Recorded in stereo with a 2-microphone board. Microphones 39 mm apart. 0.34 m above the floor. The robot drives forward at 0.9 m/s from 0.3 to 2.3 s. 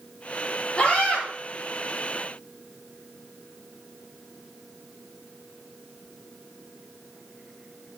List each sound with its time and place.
0.8 s a scream: 20° left (ahead or behind), 6 m